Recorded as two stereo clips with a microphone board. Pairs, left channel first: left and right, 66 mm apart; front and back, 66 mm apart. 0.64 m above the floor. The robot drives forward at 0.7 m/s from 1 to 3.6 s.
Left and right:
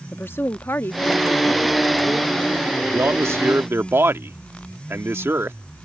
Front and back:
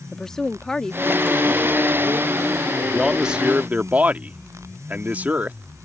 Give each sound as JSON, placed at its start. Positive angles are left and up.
{"t": 0.1, "sound": "a woman speaking", "azimuth_deg": 75}
{"t": 2.9, "sound": "a man speaking", "azimuth_deg": -85}